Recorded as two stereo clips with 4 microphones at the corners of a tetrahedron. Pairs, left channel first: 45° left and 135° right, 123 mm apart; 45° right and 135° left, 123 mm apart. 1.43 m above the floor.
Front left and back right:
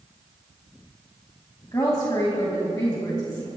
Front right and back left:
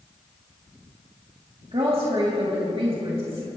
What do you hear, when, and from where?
1.7 s a woman speaking: 100° left, 2 m